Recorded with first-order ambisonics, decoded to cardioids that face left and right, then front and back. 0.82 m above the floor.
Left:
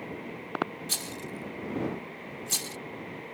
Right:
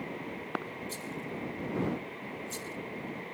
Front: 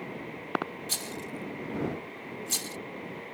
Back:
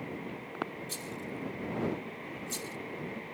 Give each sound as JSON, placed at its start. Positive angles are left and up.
{"t": 0.9, "sound": "a rattle", "azimuth_deg": 55}